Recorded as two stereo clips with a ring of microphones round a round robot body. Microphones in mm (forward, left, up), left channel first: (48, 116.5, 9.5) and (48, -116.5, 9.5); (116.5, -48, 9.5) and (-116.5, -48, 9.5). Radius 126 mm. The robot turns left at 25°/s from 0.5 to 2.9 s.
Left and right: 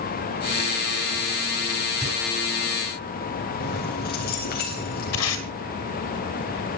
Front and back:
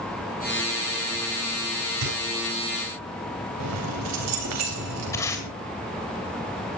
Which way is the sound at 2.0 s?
Straight behind.